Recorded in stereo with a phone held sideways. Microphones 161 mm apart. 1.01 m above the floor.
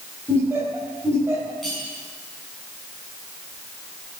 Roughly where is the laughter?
Centre.